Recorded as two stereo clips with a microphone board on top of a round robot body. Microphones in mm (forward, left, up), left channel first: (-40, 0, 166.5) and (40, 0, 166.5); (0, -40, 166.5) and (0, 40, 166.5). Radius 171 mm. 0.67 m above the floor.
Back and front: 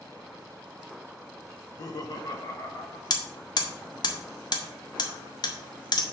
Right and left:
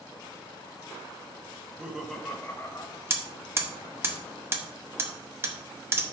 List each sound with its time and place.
1.6 s laughter: 145° left, 1.6 m; by 3.0 s 130° right, 1.8 m
3.1 s hammering: 150° left, 1.4 m